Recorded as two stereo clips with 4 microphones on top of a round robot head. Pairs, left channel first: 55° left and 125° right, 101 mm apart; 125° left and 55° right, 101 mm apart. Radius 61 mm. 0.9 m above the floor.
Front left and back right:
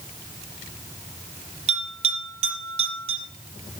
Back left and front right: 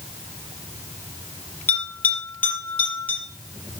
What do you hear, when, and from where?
1.7 s a bell: 155° right, 6 m